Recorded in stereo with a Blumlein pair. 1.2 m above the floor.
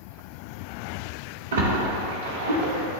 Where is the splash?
65° right, 1.0 m.